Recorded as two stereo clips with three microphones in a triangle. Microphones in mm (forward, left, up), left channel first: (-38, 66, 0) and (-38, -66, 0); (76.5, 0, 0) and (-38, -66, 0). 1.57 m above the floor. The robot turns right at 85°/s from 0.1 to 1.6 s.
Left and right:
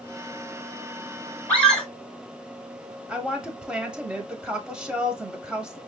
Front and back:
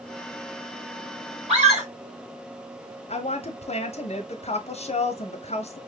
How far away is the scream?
About 2.5 m.